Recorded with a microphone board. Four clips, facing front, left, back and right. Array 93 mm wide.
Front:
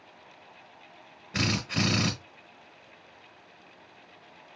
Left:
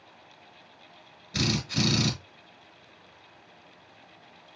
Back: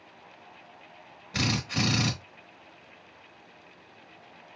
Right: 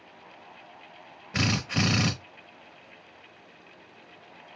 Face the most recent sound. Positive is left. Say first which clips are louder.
# right 1 dB, even
turn(degrees=-75)